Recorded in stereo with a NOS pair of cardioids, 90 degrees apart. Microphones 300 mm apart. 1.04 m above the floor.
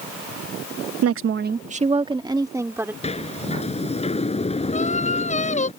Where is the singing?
25° left.